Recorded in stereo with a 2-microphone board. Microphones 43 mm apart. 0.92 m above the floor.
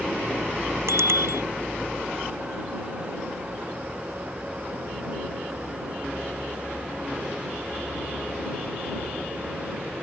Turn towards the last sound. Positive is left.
turn(degrees=-85)